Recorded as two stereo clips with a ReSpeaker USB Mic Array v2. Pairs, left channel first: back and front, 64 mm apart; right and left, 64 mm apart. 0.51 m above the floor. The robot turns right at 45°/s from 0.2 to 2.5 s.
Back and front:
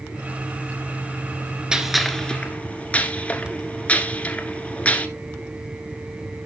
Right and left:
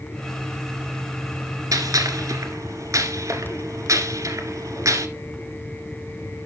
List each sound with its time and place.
1.7 s a gunshot: 80° left, 1.3 m; by 5.1 s 115° left, 1.3 m